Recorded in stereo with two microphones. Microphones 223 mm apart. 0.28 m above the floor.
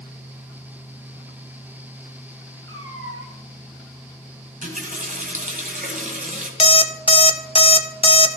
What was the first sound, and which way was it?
A cat meowing, 70° right (ahead or behind).